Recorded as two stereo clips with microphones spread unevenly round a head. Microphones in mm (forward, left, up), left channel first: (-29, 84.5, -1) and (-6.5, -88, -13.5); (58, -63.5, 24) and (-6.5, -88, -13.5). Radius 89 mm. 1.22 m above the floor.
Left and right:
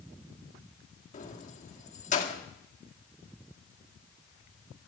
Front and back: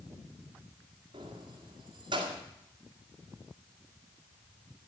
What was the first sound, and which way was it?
Keys jangling, 145° left.